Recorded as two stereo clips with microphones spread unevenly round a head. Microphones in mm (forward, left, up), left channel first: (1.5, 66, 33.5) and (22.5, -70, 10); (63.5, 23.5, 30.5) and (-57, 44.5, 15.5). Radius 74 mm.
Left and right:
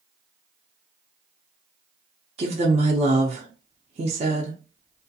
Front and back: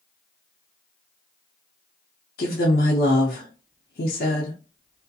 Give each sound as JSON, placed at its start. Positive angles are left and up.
{"t": 2.4, "sound": "a woman speaking", "azimuth_deg": -35, "distance_m": 0.6}